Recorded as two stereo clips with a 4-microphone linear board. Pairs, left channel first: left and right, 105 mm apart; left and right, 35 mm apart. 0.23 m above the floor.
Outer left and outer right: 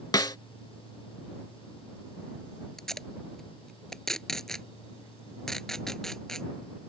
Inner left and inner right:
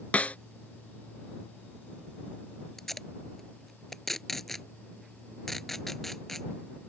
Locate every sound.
0.1 s a snare drum: 40° left (ahead or behind)
2.8 s tape being pulled: 5° left (ahead or behind)